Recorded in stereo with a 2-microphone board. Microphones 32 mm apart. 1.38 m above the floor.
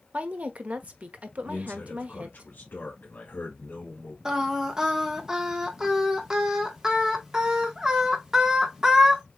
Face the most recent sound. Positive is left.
turn(degrees=-20)  # may be behind; listen again after turning